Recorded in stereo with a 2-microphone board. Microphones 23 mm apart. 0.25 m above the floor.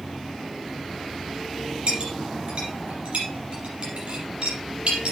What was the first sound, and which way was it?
A clink, 60° right (ahead or behind).